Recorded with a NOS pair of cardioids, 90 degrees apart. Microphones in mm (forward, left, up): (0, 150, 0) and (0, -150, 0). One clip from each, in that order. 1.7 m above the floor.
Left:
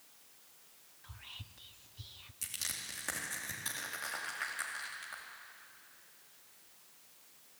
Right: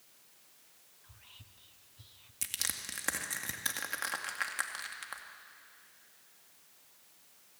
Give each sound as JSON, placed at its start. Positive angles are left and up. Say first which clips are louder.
{"t": 1.0, "sound": "whispering", "louder": "left 7 dB", "azimuth_deg": 30, "distance_m": 0.7}
{"t": 2.4, "sound": "crushing", "louder": "right 3 dB", "azimuth_deg": -55, "distance_m": 2.5}